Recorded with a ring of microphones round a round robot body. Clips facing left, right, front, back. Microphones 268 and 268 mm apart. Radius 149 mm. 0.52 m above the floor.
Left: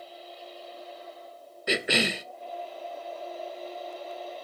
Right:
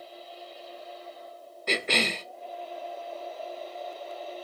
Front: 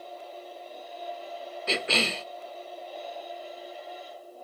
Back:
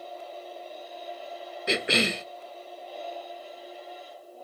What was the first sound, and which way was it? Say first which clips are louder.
A cough: left 2 dB, back 3 dB; 150° left.